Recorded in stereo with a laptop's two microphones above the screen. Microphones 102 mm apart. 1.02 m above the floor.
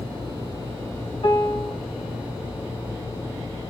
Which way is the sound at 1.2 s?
60° left (ahead or behind).